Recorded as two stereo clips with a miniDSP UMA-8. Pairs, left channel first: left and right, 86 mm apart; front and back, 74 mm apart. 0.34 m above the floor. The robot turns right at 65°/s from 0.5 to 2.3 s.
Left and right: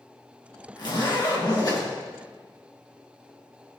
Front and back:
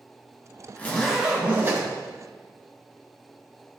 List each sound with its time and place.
0.8 s a zipper: 65° left, 2 m; by 1.9 s 135° left, 2 m